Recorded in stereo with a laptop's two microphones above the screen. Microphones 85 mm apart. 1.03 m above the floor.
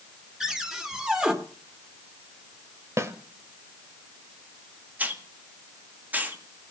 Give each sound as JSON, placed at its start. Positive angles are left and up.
{"t": 0.4, "sound": "a cupboard door", "side_deg": -5, "distance_m": 2.0}
{"t": 3.0, "sound": "a snare drum", "side_deg": -35, "distance_m": 1.6}
{"t": 5.0, "sound": "a hiss", "side_deg": -20, "distance_m": 1.8}